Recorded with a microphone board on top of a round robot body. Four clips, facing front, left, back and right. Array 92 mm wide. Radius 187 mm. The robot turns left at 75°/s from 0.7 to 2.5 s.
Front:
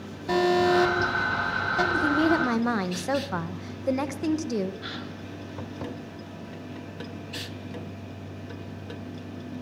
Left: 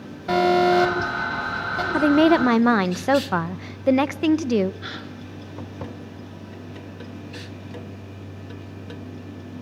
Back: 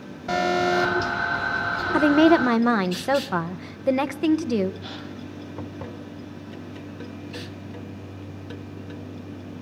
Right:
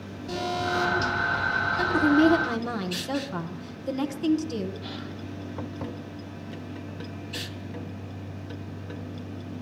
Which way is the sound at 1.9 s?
155° left.